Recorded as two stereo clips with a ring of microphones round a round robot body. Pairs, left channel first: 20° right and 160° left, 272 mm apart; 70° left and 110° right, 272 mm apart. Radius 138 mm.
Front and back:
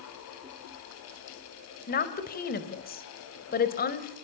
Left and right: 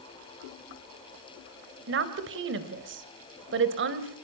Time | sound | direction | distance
1.9 | a woman speaking | 75° right | 2.5 m